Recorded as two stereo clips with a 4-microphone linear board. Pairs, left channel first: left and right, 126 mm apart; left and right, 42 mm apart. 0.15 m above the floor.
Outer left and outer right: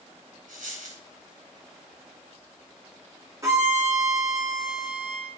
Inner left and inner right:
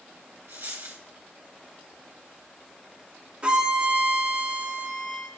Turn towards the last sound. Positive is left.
turn(degrees=-25)  # may be behind; listen again after turning